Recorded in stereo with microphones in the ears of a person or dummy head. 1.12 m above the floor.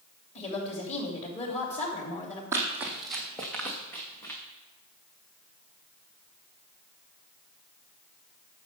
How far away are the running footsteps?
About 1.7 m.